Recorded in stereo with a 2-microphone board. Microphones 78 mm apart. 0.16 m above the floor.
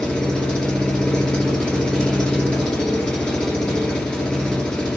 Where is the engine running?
10° left (ahead or behind), 0.9 m.